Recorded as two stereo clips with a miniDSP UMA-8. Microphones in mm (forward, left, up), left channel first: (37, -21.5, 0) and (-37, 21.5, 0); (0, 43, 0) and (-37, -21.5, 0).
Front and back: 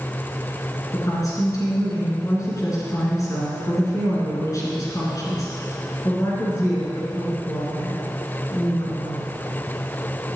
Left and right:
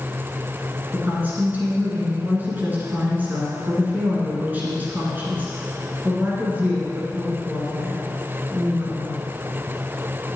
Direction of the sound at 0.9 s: 60° right.